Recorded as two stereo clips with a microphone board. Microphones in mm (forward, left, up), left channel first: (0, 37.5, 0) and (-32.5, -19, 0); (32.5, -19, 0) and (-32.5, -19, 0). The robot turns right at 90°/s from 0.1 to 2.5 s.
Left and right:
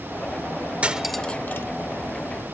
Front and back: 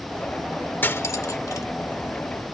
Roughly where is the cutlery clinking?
Ahead right.